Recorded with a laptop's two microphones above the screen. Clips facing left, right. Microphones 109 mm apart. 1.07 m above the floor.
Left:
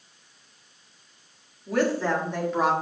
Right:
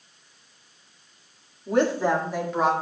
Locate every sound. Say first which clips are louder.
1.7 s a woman speaking: right 2 dB; 30° right (ahead or behind), 1.8 m; by 2.7 s 5° left (ahead or behind), 2.5 m